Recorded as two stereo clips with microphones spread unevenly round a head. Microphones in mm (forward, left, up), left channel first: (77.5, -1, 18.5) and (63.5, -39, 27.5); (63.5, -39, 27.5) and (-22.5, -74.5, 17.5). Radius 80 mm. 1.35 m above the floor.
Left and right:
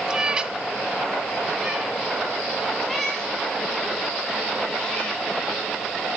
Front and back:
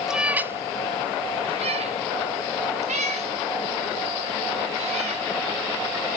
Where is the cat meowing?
70° right, 0.8 m; by 5.2 s 160° left, 3 m.